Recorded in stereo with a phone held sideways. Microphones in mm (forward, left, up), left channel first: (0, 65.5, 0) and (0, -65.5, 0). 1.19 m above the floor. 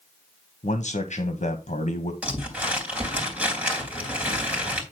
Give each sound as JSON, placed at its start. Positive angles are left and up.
{"t": 0.6, "sound": "a man speaking", "side_deg": 65, "distance_m": 1.2}
{"t": 2.2, "sound": "crumpling", "side_deg": -10, "distance_m": 3.5}